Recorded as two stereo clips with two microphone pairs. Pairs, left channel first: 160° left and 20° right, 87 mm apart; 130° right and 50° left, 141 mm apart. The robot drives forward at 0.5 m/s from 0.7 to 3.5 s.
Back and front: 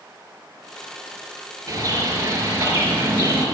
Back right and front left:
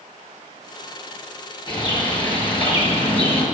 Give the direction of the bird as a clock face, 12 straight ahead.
2 o'clock.